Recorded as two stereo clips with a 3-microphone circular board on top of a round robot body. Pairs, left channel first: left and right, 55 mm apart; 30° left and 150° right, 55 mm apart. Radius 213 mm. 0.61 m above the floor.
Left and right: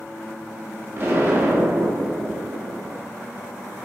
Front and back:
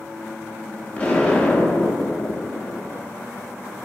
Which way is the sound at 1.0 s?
40° right.